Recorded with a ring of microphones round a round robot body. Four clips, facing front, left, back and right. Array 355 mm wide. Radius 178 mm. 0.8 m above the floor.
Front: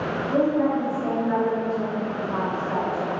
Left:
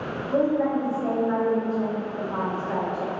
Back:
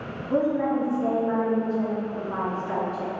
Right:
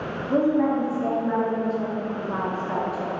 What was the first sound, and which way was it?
A woman speaking, 115° right.